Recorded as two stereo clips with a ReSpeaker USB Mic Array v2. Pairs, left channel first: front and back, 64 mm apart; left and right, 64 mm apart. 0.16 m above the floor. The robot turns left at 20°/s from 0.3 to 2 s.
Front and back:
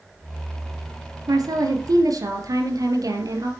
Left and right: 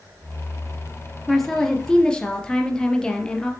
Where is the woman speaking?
Straight behind, 3 m; by 3.5 s 165° left, 3 m.